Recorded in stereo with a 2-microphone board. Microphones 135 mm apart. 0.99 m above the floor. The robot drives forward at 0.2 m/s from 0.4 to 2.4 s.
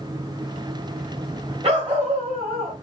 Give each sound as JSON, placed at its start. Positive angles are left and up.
{"t": 1.6, "sound": "a dog barking", "side_deg": -50, "distance_m": 1.6}